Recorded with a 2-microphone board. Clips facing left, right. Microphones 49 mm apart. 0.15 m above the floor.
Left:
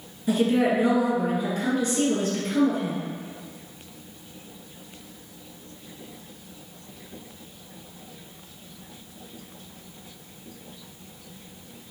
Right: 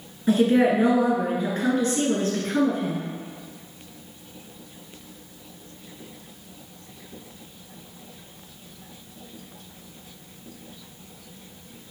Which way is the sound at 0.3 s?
35° right (ahead or behind).